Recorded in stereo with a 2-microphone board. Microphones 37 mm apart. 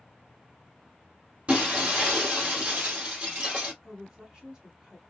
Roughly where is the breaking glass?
Right.